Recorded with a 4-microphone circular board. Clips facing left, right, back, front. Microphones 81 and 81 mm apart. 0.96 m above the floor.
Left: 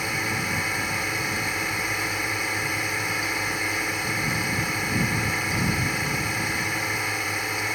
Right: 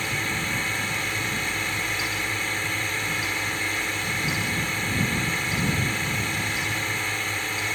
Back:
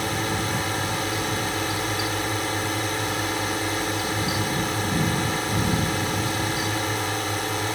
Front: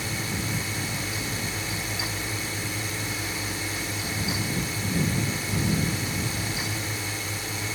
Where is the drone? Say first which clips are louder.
Left 1 dB, back 6 dB; 170° left.